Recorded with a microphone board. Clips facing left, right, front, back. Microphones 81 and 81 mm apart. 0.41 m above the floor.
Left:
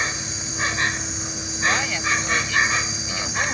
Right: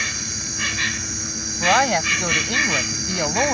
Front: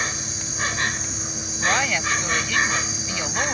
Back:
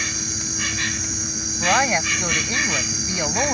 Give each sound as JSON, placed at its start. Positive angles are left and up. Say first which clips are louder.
{"t": 0.0, "sound": "an insect", "louder": "left 2 dB, even", "azimuth_deg": 40}
{"t": 1.6, "sound": "a woman speaking", "louder": "right 6 dB, back 3 dB", "azimuth_deg": -120}